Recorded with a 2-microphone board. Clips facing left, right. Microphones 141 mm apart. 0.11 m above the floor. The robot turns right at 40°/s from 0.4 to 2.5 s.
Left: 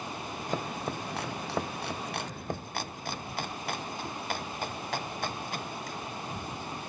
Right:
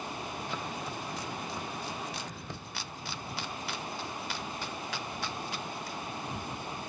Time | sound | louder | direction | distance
0.5 | chopping | left 4 dB | 45° left (ahead or behind) | ?